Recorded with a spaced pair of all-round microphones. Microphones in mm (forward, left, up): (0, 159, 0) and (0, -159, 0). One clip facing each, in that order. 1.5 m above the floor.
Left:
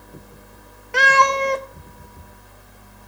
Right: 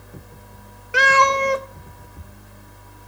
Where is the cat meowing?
10° right (ahead or behind), 0.7 m.